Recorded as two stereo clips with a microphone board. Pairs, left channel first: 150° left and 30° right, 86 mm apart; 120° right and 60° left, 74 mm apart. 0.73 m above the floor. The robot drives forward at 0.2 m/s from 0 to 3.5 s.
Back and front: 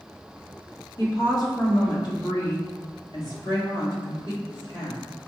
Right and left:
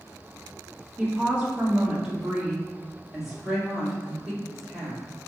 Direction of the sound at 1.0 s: 125° left.